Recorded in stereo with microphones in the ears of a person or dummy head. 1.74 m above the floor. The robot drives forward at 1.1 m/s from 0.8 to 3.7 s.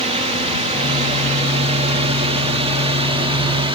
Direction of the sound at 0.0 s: 35° right (ahead or behind).